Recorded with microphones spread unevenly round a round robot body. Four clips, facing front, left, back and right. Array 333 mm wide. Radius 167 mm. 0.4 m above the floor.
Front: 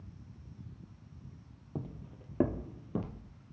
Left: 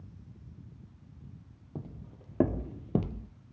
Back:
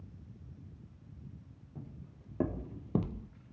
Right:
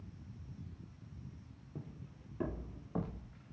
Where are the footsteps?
30° left, 1.0 m; by 3.3 s 125° left, 1.0 m.